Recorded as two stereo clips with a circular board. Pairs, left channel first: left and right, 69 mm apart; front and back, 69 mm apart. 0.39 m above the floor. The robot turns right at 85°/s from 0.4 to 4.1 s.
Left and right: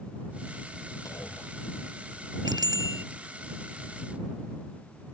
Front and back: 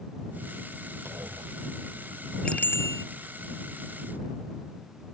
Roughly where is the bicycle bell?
Right.